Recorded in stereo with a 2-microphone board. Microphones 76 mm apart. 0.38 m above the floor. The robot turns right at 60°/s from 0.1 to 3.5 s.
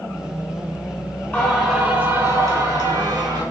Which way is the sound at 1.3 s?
160° left.